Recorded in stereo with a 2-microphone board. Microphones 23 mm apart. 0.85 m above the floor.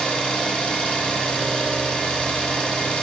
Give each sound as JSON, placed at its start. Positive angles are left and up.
{"t": 0.0, "sound": "an engine running", "side_deg": 75, "distance_m": 2.0}